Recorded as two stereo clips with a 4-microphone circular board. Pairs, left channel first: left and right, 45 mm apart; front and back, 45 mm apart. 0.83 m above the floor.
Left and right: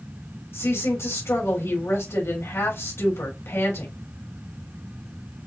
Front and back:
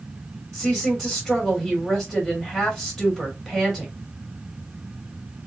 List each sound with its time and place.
0.5 s a woman speaking: 95° left, 2.5 m